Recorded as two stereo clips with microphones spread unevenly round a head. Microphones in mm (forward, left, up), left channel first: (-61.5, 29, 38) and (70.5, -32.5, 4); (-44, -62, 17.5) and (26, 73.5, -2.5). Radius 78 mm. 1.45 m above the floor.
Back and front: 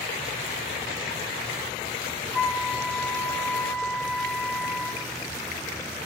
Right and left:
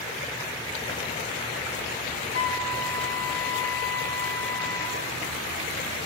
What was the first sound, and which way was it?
A flute, 110° right.